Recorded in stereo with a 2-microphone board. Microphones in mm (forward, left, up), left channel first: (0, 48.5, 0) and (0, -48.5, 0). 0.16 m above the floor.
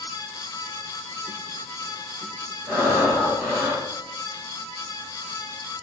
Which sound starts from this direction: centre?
Breathing, at 2.7 s.